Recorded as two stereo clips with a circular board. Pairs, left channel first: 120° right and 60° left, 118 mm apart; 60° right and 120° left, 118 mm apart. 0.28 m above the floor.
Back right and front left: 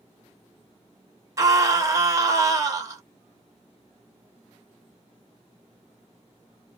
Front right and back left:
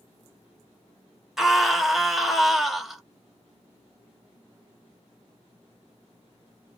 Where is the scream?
35° left, 1.1 m.